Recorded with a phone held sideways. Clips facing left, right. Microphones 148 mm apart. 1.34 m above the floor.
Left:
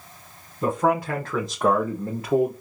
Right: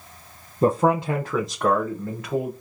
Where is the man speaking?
40° right (ahead or behind), 0.8 m; by 2.5 s 40° left (ahead or behind), 1.0 m.